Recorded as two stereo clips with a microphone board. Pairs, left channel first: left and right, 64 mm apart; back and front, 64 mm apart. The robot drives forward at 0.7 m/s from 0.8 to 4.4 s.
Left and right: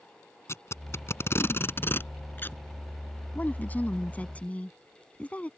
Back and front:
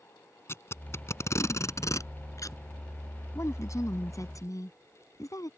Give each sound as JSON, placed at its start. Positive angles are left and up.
{"t": 0.5, "sound": "tape being pulled", "azimuth_deg": 130}
{"t": 3.4, "sound": "a woman speaking", "azimuth_deg": 150}